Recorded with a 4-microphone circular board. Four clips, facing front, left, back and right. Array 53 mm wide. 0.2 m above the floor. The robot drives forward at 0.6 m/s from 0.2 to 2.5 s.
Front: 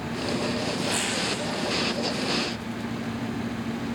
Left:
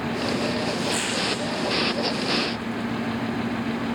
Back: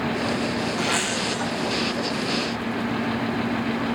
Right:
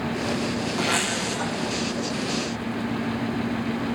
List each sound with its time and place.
0.8 s a zipper: 115° right, 6 m; by 1.5 s 120° right, 6 m